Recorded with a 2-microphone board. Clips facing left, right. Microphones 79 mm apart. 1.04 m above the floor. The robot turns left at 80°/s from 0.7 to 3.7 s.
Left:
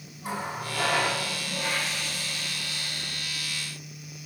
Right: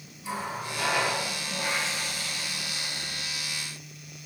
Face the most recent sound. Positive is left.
turn(degrees=180)